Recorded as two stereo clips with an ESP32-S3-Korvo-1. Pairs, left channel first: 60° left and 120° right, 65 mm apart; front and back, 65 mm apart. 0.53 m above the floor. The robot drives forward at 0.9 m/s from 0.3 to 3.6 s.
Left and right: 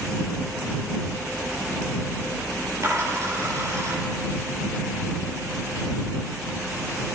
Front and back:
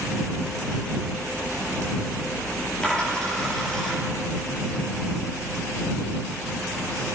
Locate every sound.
2.8 s a dropped coin: 75° right, 6 m; by 4.0 s 85° right, 6 m